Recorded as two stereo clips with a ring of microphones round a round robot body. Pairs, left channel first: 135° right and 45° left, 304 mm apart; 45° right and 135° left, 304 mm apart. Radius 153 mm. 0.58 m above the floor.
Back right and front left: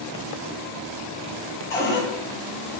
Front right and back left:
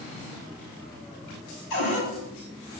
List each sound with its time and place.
1.7 s a cupboard door: 55° right, 3.5 m